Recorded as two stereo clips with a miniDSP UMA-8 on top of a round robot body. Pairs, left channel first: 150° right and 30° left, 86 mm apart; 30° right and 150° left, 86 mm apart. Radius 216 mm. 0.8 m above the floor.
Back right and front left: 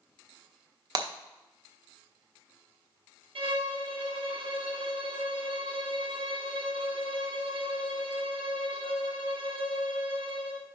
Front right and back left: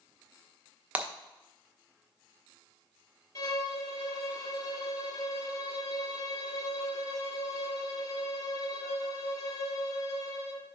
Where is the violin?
20° left, 1.8 m.